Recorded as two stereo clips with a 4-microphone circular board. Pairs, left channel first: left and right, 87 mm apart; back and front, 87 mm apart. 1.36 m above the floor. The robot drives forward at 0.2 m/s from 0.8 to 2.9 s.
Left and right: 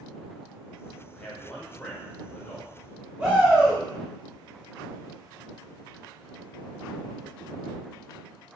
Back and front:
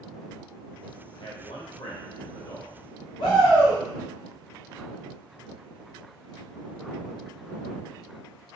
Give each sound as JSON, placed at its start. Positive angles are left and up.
{"t": 1.2, "sound": "a man speaking", "azimuth_deg": 165, "distance_m": 0.8}
{"t": 3.2, "sound": "a shout", "azimuth_deg": -155, "distance_m": 0.7}